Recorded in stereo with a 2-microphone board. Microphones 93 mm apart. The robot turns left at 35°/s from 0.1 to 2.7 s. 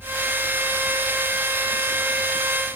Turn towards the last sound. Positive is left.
No sound to turn to.